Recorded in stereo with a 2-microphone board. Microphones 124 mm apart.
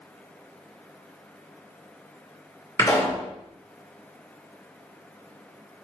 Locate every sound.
2.8 s a pop: 25° left (ahead or behind), 2.5 m